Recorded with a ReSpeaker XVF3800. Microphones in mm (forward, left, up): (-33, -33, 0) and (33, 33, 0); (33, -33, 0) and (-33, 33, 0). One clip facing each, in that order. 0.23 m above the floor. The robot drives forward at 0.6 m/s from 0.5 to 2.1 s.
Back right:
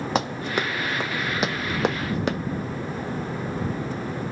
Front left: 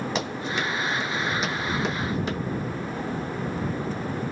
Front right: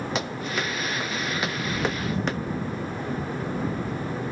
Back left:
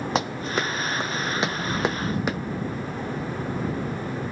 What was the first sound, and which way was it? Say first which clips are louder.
Running footsteps: back right 7 dB, back left 5 dB; 175° right.